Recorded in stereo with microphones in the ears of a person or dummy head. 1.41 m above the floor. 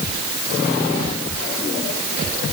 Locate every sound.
Only background noise.